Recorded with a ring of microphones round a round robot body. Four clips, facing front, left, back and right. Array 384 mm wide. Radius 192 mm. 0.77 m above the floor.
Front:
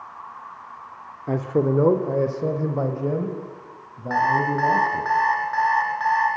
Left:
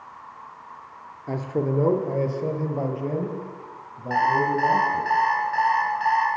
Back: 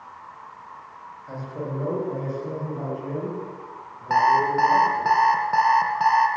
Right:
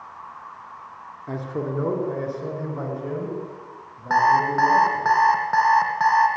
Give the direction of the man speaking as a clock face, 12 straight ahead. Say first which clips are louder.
Left 3 dB, front 11 dB; 12 o'clock.